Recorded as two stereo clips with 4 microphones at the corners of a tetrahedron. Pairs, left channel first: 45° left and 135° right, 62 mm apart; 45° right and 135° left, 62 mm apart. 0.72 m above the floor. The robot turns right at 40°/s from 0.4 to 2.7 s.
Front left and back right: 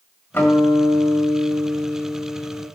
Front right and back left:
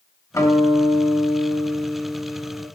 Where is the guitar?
15° right, 2 m; by 2.6 s 75° left, 2 m.